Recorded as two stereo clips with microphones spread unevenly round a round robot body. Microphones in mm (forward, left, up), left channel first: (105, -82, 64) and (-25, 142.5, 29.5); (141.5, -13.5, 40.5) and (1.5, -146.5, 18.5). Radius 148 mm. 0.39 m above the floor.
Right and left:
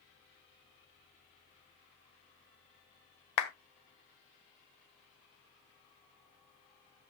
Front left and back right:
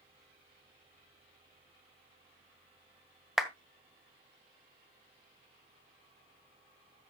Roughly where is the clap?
Ahead right.